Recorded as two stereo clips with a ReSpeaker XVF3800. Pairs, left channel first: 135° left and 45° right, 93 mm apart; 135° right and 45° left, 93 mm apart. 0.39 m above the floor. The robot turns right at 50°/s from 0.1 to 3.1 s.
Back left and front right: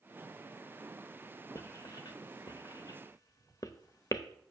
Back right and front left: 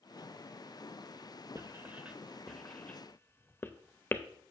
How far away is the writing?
About 0.6 m.